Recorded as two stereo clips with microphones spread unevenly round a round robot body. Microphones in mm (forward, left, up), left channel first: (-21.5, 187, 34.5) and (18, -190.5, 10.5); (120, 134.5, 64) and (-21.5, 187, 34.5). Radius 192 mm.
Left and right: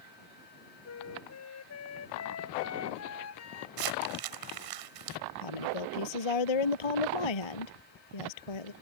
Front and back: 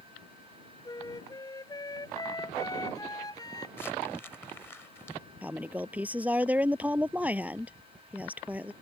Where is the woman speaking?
80° left.